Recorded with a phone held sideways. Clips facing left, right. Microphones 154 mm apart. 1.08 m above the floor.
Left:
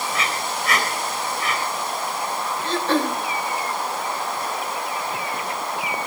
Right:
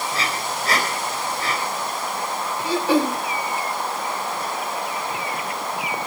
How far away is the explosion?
No explosion in this recording.